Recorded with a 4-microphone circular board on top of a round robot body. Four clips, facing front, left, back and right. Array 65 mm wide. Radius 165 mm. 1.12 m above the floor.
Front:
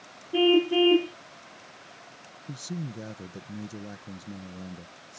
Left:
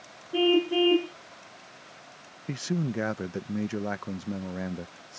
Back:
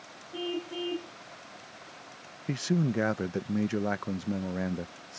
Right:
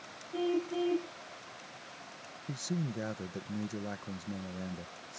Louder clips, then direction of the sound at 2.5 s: Left 7 dB, back 9 dB; 140° left.